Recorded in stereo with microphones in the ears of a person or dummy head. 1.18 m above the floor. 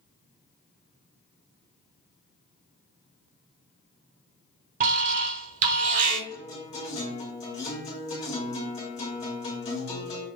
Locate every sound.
4.8 s an alarm: 45° right (ahead or behind), 1.0 m
6.3 s a guitar: 40° left (ahead or behind), 2 m